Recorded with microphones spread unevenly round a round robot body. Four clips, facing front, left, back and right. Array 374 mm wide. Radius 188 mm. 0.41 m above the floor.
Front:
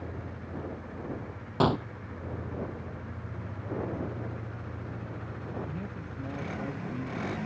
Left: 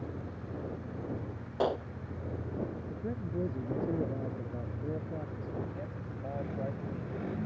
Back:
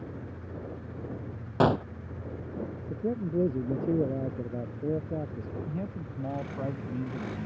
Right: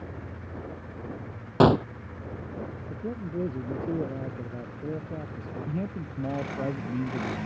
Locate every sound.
1.6 s a gunshot: 100° right
2.9 s a man speaking: 165° right
5.7 s a man speaking: 115° right